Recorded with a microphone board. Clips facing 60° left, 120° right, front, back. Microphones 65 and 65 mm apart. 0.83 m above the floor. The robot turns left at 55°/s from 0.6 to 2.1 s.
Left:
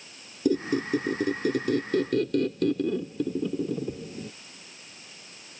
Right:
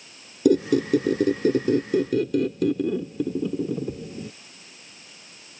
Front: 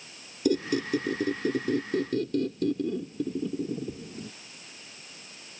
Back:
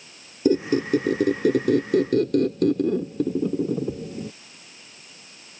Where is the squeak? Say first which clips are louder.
Right 6 dB, back 6 dB; 120° right; by 4.3 s 160° left.